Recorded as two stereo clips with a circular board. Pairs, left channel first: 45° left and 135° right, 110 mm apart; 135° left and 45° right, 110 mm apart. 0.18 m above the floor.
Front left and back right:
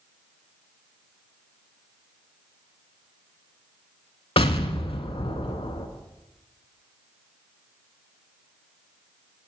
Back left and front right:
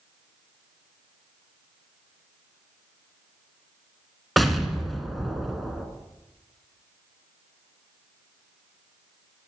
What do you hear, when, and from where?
4.4 s an explosion: 45° left, 0.6 m